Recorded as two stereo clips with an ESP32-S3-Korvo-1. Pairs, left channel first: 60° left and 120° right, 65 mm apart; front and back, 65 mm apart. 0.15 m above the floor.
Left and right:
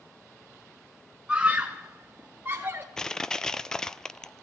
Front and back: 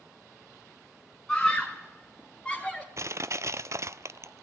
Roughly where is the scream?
Right.